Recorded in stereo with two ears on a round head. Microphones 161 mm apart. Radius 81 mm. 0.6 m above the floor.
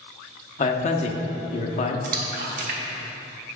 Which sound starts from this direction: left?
A man speaking, at 0.6 s.